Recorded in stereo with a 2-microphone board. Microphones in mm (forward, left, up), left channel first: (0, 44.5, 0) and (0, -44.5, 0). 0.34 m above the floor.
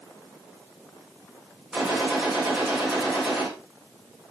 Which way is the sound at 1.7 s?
5° right (ahead or behind).